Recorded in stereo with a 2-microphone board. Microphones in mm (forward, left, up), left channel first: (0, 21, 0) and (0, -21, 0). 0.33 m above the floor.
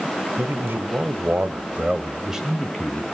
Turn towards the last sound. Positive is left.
turn(degrees=5)  # may be behind; listen again after turning